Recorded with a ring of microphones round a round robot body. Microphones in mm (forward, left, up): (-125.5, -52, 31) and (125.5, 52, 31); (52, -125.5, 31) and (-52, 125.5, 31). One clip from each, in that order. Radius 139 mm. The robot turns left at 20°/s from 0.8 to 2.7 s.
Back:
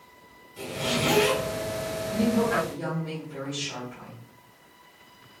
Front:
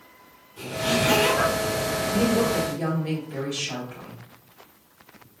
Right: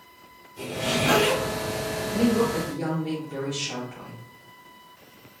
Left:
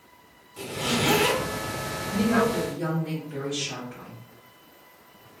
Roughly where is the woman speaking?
Ahead left.